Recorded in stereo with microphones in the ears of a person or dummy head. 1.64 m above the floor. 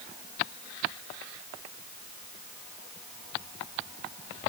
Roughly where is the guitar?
I don't hear a guitar.